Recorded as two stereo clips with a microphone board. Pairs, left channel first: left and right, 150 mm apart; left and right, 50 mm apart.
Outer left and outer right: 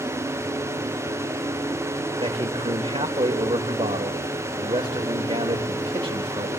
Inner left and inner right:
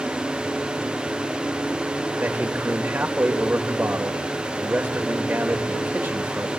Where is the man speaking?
35° right (ahead or behind), 2.5 m.